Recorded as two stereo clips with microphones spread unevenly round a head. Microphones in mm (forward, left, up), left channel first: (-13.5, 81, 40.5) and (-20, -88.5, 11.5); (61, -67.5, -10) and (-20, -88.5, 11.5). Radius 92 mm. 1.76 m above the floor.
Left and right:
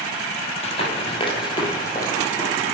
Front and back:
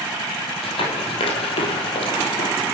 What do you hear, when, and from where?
0.6 s running footsteps: 45° left, 3 m; by 2.5 s 15° left, 3 m